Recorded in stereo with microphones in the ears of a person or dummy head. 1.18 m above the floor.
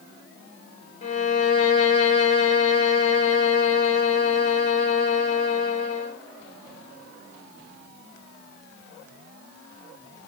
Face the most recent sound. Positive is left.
turn(degrees=35)  # may be behind; listen again after turning